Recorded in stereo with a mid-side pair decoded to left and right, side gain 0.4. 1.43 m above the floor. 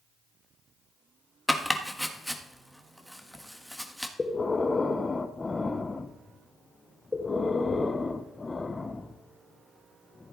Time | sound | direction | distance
1.5 | chopping | 5° right | 1.5 m
4.2 | breathing | 25° left | 1.0 m